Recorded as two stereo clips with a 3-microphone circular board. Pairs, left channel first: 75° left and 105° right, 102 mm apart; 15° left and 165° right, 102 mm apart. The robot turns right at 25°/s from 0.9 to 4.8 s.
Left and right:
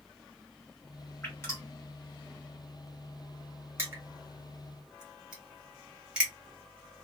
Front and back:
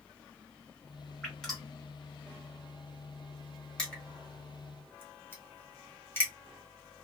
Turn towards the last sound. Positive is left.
turn(degrees=-35)